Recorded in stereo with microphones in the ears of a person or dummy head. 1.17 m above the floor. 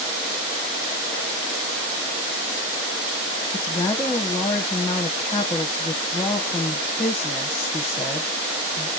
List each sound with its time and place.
3.5 s a woman speaking: 10° left (ahead or behind), 0.9 m